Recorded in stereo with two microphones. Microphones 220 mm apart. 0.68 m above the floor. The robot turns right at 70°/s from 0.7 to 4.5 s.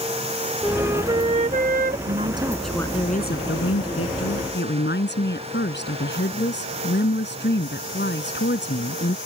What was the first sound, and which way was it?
A flute, 175° right.